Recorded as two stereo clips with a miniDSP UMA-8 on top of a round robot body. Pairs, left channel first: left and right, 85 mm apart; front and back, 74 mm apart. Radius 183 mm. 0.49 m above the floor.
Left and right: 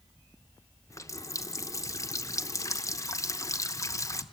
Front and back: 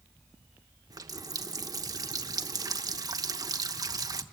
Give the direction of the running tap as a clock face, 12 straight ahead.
7 o'clock.